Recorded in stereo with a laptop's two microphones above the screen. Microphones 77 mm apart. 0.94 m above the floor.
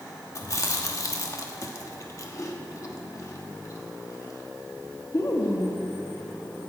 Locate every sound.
0.3 s chewing: 40° left (ahead or behind), 1.1 m